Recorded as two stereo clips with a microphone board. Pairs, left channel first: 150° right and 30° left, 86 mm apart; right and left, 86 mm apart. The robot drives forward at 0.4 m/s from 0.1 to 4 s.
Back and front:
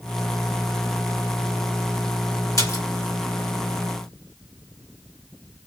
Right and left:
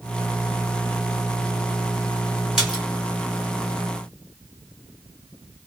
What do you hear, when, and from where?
2.6 s a splash: 170° left, 2 m